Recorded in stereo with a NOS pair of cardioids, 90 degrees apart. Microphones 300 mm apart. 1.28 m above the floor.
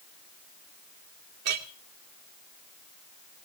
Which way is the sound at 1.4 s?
60° right.